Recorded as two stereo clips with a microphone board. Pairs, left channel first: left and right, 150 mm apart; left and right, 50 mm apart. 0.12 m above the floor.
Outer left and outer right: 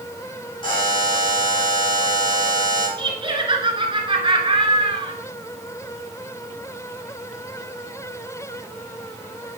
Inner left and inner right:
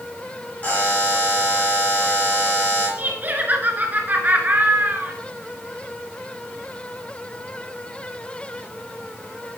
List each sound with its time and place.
0.6 s a buzzer: 30° left (ahead or behind), 5 m
3.0 s laughter: 35° right (ahead or behind), 1.4 m